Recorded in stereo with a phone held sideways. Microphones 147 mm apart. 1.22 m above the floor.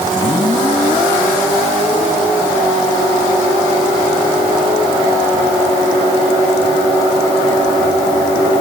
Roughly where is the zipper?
I don't hear a zipper.